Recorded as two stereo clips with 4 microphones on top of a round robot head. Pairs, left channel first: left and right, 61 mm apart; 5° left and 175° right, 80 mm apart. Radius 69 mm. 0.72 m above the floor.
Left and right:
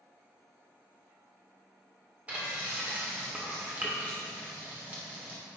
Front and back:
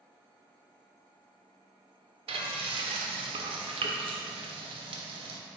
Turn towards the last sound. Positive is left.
turn(degrees=-165)